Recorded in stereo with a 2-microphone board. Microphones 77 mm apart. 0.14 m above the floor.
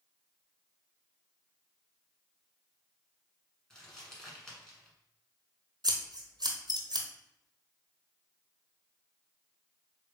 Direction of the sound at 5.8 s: 70° right (ahead or behind).